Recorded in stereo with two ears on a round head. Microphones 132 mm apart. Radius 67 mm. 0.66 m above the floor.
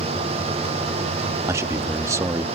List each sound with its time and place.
1.5 s a man speaking: 20° right (ahead or behind)